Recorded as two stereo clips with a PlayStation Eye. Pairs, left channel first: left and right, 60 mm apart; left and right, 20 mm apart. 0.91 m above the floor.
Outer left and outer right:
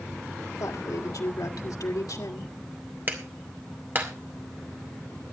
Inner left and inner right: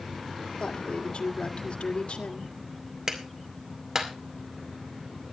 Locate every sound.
0.6 s a woman speaking: 75° left (ahead or behind), 2.0 m
3.1 s a clap: 30° right (ahead or behind), 2 m